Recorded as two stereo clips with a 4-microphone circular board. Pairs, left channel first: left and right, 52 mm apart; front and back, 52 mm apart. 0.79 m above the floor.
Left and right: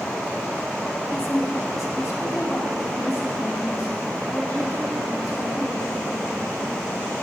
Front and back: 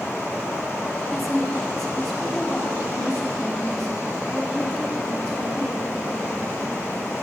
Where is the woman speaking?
85° left, 1.1 m; by 5.9 s 80° left, 5 m.